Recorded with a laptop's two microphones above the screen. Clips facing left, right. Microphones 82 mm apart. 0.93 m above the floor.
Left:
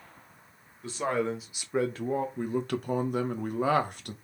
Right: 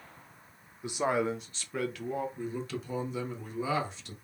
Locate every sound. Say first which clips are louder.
0.8 s a man speaking: even; 20° right (ahead or behind), 0.9 m; by 2.3 s 45° left (ahead or behind), 0.7 m
2.4 s a man speaking: left 6 dB; 55° left (ahead or behind), 0.9 m